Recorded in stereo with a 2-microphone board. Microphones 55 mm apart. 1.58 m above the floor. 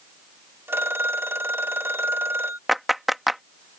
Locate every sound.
0.7 s a phone ringing: 45° right (ahead or behind)
2.7 s a clap: 5° right (ahead or behind)